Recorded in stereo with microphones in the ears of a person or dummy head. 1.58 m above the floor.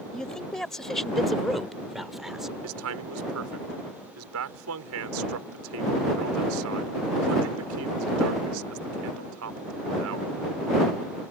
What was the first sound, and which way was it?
A man speaking, centre (ahead or behind).